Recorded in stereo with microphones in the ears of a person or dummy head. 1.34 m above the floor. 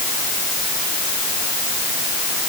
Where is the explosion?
No explosion in this recording.